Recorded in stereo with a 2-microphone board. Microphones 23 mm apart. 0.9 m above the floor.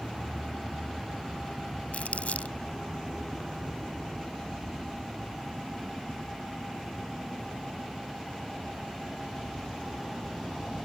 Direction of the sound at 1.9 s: 80° left.